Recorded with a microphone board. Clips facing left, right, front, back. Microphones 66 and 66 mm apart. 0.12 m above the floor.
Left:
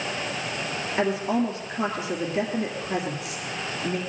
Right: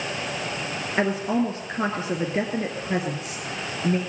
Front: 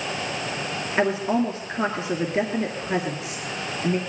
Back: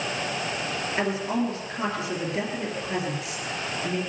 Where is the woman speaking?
50° right, 2 m.